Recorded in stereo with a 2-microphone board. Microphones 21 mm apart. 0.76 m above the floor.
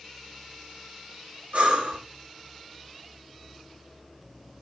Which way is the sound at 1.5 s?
80° right.